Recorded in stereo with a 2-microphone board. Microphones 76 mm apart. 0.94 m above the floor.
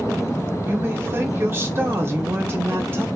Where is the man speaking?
30° right (ahead or behind), 0.8 m.